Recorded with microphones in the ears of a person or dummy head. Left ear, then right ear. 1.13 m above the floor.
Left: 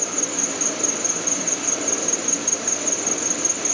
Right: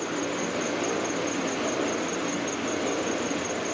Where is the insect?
80° left.